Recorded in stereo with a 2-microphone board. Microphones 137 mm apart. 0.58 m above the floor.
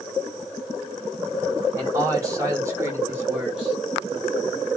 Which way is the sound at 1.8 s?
25° right (ahead or behind).